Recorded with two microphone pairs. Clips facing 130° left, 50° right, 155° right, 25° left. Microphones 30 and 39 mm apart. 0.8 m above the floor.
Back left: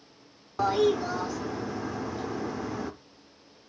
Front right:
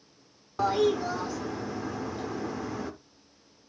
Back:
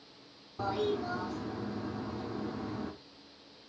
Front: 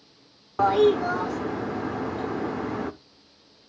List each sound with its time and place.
0.6 s a toilet flushing: 45° left, 0.8 m